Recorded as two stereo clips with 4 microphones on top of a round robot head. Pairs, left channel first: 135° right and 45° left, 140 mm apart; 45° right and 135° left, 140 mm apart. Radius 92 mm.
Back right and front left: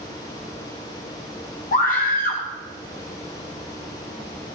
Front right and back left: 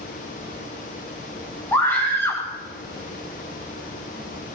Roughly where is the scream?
Behind right.